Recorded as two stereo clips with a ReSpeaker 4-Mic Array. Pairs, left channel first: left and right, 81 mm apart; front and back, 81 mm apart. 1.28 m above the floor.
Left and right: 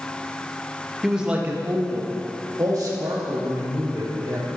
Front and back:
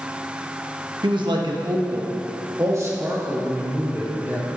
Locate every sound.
1.0 s a man speaking: 175° right, 1.3 m; by 4.5 s 115° right, 3 m